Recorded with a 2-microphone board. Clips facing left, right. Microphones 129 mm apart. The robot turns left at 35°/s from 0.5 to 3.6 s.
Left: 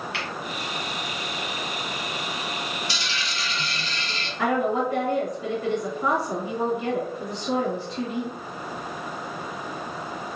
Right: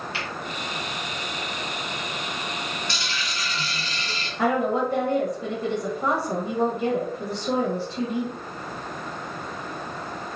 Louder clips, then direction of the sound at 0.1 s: Even; 65° left (ahead or behind).